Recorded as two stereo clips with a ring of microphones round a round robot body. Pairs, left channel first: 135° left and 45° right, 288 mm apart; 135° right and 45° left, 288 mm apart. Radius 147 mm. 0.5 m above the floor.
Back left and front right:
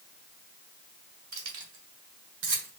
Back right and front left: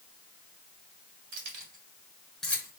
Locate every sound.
1.3 s keys jangling: straight ahead, 1.9 m; by 2.7 s 60° right, 1.6 m